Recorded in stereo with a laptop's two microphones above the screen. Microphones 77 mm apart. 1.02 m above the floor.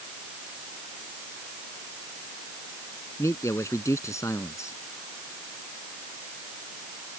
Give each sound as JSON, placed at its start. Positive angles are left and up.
{"t": 3.2, "sound": "a man speaking", "side_deg": 40}